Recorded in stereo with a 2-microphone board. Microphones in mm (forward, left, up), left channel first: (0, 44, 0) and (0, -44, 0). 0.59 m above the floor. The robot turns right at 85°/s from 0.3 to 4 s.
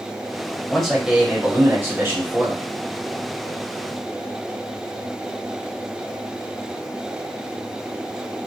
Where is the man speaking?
5° left (ahead or behind), 1.1 m; by 2.6 s 10° right (ahead or behind), 1.1 m.